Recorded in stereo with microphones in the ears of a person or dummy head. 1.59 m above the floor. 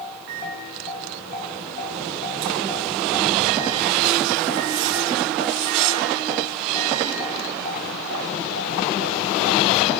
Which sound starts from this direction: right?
A microwave, at 0.3 s.